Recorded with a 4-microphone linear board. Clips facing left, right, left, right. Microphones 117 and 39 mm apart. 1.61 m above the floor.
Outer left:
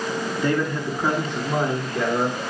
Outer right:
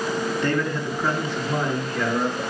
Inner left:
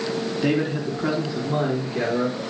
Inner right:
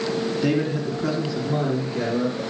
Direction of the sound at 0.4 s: 10° left (ahead or behind).